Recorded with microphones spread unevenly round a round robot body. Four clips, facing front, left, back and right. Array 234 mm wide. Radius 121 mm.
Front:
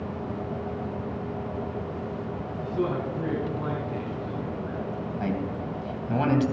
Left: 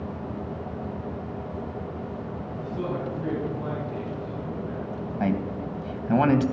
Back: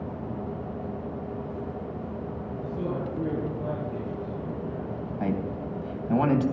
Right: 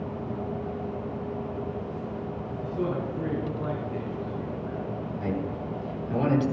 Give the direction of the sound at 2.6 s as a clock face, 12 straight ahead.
11 o'clock.